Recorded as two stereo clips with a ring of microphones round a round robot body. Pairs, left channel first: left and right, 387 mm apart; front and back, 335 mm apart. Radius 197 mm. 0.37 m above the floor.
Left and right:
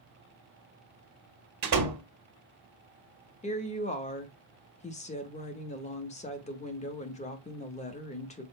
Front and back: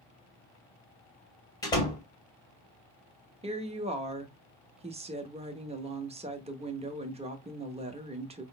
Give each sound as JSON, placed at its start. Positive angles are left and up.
{"t": 1.6, "sound": "a door slam", "azimuth_deg": -75, "distance_m": 1.3}
{"t": 3.4, "sound": "a woman speaking", "azimuth_deg": 135, "distance_m": 0.9}